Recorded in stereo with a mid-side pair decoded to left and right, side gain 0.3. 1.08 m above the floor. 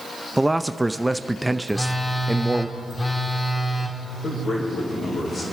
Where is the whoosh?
I don't hear a whoosh.